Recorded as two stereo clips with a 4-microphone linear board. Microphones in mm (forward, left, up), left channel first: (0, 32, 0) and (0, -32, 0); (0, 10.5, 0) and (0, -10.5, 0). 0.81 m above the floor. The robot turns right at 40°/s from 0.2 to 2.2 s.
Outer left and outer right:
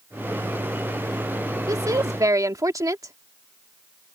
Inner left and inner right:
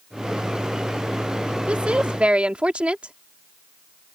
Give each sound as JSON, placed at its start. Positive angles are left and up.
{"t": 1.7, "sound": "a woman speaking", "side_deg": -65}